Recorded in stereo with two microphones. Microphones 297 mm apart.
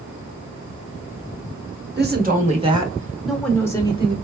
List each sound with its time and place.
2.0 s a woman speaking: 35° right (ahead or behind), 1.1 m; by 4.1 s 20° left (ahead or behind), 1.2 m